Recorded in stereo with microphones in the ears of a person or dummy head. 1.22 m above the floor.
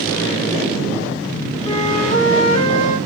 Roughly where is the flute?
Left.